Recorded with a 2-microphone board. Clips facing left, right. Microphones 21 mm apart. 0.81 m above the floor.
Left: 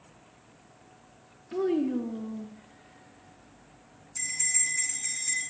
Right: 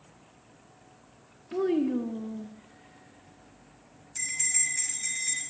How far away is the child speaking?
About 0.6 m.